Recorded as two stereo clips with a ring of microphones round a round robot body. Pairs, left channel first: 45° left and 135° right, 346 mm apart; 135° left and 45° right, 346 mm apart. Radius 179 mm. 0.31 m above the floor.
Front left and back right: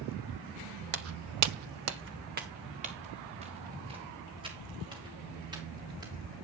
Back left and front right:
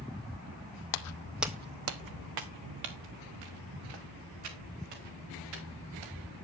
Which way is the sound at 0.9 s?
165° left.